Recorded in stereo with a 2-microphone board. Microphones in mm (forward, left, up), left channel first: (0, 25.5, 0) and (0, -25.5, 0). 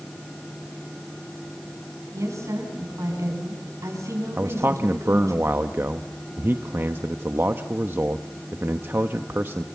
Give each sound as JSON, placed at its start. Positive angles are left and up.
{"t": 2.1, "sound": "a woman speaking", "side_deg": -85, "distance_m": 9.0}
{"t": 4.4, "sound": "a man speaking", "side_deg": -45, "distance_m": 1.0}